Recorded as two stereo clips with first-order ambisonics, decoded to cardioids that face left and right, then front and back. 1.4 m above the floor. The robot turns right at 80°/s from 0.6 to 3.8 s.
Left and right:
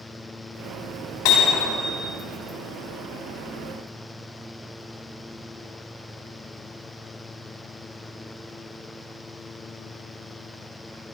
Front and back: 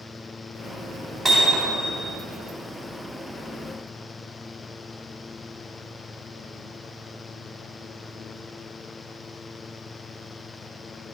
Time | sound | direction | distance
1.2 | hammering | 105° left | 4.5 m